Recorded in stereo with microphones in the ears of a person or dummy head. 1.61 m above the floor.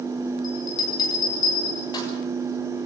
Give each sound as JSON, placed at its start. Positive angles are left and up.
{"t": 0.4, "sound": "a bell", "side_deg": 20, "distance_m": 7.0}